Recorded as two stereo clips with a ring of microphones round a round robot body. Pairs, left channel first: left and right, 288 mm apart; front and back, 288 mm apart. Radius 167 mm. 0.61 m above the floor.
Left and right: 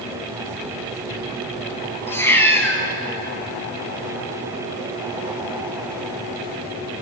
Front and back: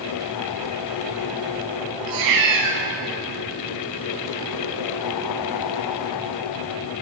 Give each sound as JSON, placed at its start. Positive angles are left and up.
{"t": 2.1, "sound": "a cat meowing", "azimuth_deg": 170, "distance_m": 2.0}